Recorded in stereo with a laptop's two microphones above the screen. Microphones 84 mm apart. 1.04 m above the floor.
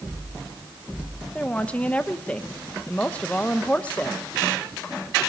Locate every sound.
1.4 s a woman speaking: 15° left (ahead or behind), 0.9 m